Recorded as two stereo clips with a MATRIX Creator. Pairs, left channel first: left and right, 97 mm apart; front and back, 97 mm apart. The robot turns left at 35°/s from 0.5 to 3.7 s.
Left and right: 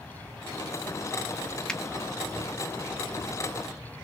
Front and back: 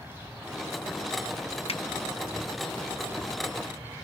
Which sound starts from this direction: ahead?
A finger snap, at 1.7 s.